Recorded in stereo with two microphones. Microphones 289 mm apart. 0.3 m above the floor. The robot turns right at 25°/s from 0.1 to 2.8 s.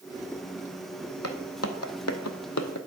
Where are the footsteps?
60° left (ahead or behind), 0.9 m; by 2.8 s 75° left (ahead or behind), 0.8 m.